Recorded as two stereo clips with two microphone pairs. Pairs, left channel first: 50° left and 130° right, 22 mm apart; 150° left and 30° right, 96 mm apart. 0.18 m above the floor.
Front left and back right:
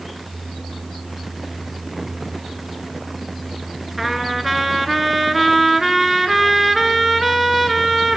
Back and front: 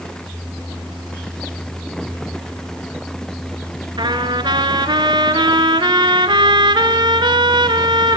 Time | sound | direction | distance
4.0 | a trumpet | 50° right | 1.5 m